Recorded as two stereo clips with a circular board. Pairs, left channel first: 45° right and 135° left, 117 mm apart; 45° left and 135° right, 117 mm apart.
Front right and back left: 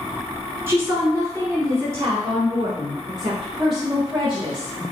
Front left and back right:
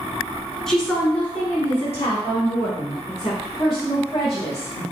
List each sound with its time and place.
0.7 s a woman speaking: 125° left, 1.3 m; by 4.8 s 90° left, 3 m